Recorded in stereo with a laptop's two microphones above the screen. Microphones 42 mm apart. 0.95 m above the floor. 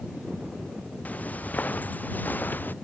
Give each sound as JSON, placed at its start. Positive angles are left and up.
{"t": 1.1, "sound": "footsteps", "side_deg": 35}